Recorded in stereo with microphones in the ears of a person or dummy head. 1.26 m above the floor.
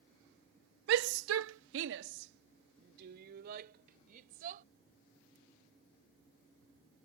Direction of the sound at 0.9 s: 65° right (ahead or behind).